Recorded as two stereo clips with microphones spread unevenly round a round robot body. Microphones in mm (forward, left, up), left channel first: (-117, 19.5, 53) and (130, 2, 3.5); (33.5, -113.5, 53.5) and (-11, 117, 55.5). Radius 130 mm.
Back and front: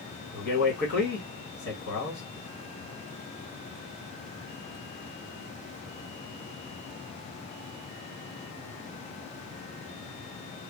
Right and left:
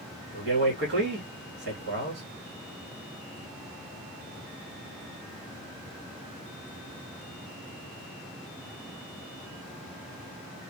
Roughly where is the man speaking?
Behind left.